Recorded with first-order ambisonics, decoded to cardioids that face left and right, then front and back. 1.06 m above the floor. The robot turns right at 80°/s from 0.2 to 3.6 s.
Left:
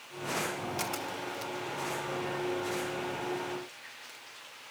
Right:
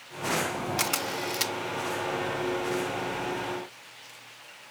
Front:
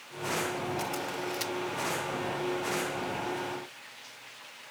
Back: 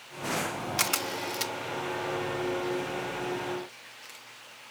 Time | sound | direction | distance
0.8 | a camera shutter | 150° right | ?